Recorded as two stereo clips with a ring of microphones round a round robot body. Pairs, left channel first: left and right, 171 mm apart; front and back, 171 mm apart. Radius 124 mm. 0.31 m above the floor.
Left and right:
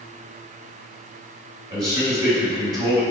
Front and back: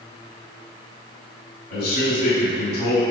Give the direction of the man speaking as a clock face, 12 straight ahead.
1 o'clock.